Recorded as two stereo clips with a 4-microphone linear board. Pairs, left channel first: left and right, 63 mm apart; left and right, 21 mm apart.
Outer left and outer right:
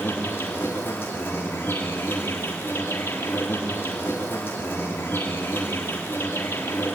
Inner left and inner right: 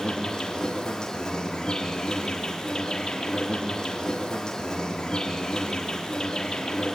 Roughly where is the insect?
Left.